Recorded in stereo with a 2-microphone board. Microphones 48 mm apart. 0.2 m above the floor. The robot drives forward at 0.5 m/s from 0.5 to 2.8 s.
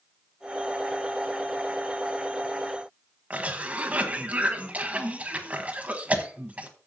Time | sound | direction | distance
3.3 | a cough | 25° right (ahead or behind) | 1.3 m